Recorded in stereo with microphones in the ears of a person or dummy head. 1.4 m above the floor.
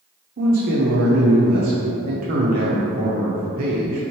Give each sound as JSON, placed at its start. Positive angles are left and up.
{"t": 0.4, "sound": "a man speaking", "side_deg": -45, "distance_m": 0.6}